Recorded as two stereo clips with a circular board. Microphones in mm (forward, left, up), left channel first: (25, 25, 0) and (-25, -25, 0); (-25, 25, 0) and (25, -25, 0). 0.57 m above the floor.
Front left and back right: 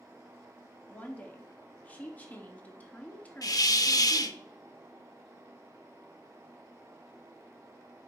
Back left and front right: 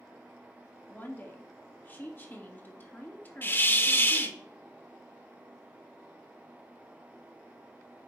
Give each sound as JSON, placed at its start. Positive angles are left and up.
{"t": 0.9, "sound": "a woman speaking", "azimuth_deg": 95, "distance_m": 0.9}
{"t": 3.4, "sound": "a hiss", "azimuth_deg": 75, "distance_m": 0.6}